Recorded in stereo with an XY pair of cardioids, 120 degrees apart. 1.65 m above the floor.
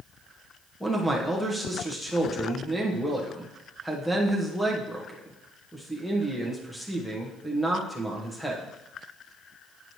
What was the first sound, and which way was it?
A man speaking, 5° left.